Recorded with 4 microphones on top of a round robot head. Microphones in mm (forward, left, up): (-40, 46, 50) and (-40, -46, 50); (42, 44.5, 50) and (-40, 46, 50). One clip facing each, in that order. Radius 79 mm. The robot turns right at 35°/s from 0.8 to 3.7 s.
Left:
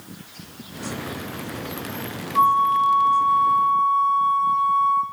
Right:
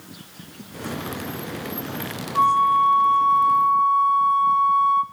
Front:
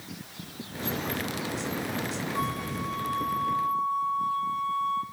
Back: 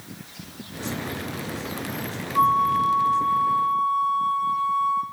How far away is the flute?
About 1.3 m.